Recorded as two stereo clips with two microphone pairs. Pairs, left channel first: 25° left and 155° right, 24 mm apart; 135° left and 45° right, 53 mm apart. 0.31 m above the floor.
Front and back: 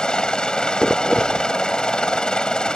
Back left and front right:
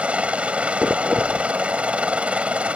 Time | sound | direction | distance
0.0 | a helicopter | 10° left | ?